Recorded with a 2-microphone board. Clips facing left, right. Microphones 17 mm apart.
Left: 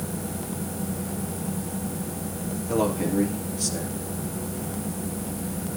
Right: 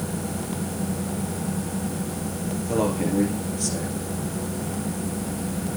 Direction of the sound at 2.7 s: 5° right (ahead or behind).